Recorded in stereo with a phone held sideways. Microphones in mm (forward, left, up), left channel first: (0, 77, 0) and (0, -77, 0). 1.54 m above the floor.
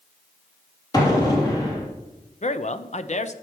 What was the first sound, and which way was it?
An explosion, 25° left (ahead or behind).